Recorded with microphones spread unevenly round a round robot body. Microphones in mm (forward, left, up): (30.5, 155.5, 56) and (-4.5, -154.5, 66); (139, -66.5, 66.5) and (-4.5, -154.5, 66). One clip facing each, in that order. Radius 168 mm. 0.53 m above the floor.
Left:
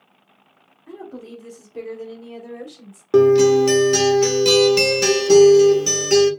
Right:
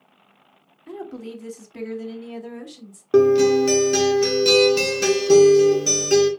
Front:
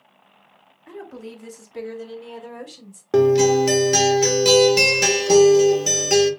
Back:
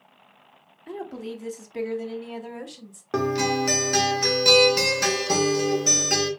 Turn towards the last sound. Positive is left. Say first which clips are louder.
# left 2 dB, front 9 dB
turn(degrees=20)